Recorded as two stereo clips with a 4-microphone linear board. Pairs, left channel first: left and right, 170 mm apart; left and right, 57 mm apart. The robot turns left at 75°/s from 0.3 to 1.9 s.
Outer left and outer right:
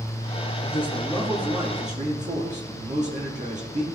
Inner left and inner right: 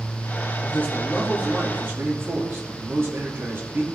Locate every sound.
0.6 s a man speaking: 45° left, 2 m; by 3.8 s 50° right, 2 m